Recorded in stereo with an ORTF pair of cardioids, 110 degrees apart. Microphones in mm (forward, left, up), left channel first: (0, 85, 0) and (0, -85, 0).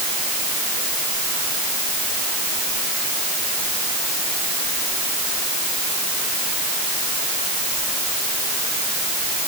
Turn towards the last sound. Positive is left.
No sound to turn to.